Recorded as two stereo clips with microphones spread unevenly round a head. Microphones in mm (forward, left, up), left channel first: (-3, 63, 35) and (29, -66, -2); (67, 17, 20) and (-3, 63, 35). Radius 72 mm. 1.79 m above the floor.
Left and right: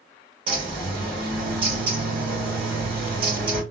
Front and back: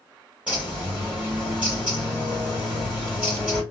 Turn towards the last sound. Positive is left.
turn(degrees=-135)